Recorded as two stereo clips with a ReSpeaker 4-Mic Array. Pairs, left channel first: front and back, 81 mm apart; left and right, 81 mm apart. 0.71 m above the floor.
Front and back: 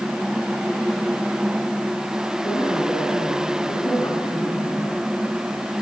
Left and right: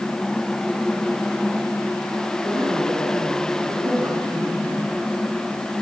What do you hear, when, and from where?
2.4 s a woman speaking: 45° right, 8.5 m